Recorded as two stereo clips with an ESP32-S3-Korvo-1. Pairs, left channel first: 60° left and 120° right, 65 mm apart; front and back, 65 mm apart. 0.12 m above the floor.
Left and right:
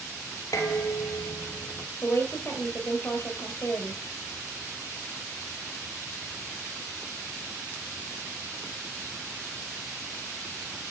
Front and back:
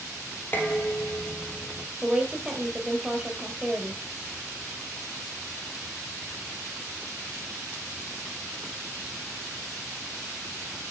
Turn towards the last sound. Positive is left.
turn(degrees=100)